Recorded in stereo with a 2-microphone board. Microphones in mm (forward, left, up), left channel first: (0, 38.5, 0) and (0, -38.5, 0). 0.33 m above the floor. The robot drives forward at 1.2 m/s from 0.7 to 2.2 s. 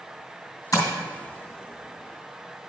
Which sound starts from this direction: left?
Tapping, at 0.7 s.